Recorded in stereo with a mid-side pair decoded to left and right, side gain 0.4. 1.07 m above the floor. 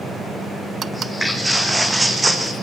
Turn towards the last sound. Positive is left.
turn(degrees=-25)